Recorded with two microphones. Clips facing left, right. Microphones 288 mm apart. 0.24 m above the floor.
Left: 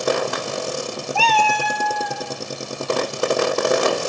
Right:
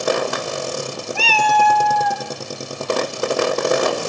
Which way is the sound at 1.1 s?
20° right (ahead or behind).